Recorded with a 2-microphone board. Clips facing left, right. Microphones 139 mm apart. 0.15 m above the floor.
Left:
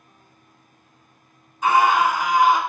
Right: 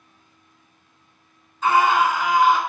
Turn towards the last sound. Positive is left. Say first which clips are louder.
# even
turn(degrees=15)  # may be behind; listen again after turning